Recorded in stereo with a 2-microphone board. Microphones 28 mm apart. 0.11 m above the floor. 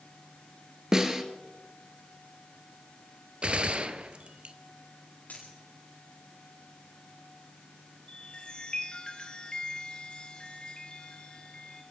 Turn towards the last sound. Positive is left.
turn(degrees=35)  # may be behind; listen again after turning